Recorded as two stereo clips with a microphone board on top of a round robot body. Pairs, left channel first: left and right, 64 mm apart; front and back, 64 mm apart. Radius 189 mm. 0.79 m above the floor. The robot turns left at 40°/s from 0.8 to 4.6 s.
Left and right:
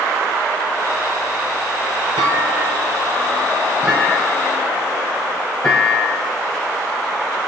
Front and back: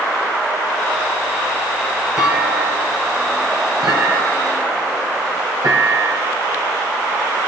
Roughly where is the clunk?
Right.